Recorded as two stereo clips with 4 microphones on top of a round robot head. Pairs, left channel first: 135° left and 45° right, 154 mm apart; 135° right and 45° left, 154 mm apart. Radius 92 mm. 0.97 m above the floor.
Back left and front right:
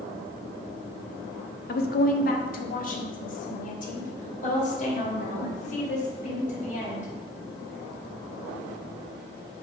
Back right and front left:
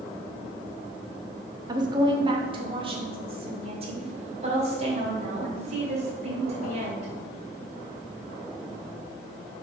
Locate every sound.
1.7 s a woman speaking: 110° left, 1.3 m; by 7.1 s 95° left, 5 m